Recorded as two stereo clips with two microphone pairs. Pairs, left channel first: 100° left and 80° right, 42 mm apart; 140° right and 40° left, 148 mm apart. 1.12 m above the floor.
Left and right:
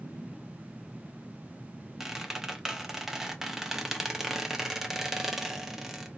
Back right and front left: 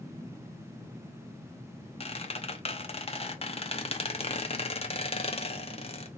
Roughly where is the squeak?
Behind right.